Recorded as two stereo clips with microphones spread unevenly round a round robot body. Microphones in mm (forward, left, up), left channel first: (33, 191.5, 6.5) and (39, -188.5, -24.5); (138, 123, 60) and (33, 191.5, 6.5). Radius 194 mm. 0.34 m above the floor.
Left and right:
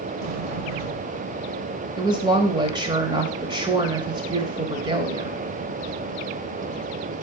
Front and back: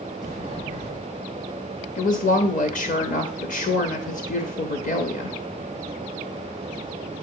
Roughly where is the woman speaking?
Ahead.